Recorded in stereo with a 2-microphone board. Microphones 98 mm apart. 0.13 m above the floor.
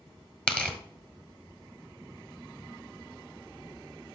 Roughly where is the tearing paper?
Centre.